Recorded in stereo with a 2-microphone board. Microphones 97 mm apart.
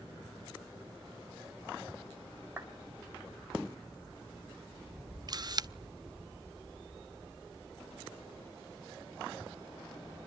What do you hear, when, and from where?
2.6 s a clap: 20° right (ahead or behind), 2.5 m
5.3 s a camera shutter: 45° right (ahead or behind), 0.6 m